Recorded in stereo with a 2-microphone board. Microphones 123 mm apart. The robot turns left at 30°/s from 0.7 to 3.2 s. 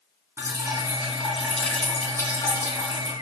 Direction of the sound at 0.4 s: 155° right.